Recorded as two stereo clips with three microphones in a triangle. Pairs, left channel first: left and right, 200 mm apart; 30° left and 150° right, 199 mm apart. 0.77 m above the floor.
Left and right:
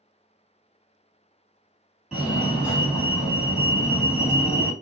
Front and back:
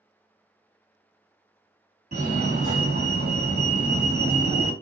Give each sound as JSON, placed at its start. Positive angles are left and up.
{"t": 2.1, "sound": "a fire alarm", "azimuth_deg": -175, "distance_m": 2.0}